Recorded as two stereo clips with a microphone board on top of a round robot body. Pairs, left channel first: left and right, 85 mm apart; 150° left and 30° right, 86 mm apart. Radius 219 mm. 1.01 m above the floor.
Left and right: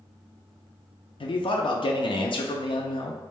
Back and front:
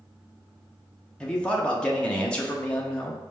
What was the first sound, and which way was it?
A man speaking, 70° left.